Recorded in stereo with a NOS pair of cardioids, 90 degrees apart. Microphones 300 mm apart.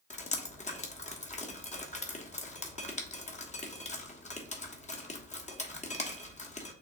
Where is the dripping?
25° left, 1.3 m.